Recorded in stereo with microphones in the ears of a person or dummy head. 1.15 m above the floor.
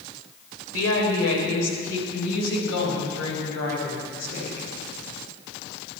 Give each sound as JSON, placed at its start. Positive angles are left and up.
{"t": 0.7, "sound": "a woman speaking", "side_deg": 85, "distance_m": 4.5}